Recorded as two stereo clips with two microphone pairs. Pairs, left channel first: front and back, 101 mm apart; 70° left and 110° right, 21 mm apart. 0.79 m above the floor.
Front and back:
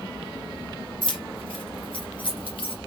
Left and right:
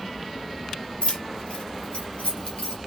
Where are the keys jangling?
40° left, 2 m; by 2.8 s 30° left, 3.5 m.